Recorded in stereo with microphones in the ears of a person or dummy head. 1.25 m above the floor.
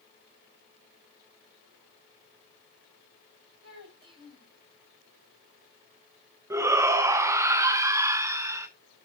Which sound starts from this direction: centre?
A shout, at 6.5 s.